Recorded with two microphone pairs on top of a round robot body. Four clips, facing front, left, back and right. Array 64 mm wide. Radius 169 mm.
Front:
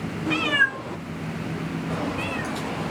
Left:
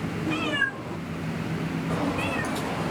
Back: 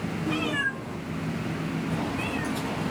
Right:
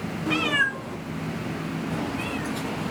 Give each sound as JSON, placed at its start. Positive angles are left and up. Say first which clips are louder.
{"t": 0.3, "sound": "a cat meowing", "louder": "right 4 dB, front 7 dB", "azimuth_deg": -50, "distance_m": 0.6}